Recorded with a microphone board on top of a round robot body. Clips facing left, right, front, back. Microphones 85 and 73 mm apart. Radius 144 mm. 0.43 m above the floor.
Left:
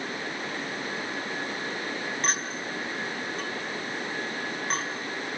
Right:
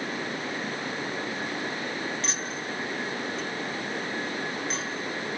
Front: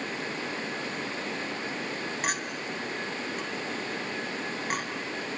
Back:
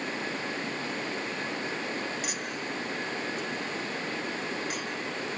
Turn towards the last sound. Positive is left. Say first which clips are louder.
# left 2 dB, front 2 dB
turn(degrees=45)